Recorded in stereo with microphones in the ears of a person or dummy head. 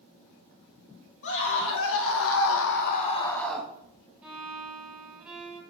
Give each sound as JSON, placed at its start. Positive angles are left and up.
{"t": 1.2, "sound": "a scream", "side_deg": 70, "distance_m": 3.0}
{"t": 4.2, "sound": "a violin", "side_deg": -5, "distance_m": 2.0}